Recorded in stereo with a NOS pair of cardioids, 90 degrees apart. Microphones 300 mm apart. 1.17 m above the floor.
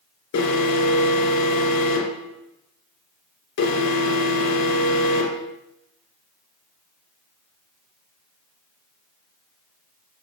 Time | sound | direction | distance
0.3 | an alarm | 70° left | 3 m